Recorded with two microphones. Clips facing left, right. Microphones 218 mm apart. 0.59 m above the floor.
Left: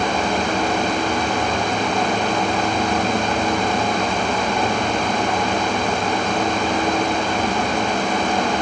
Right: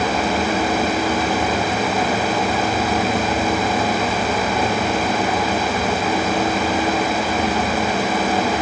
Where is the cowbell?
I don't hear a cowbell.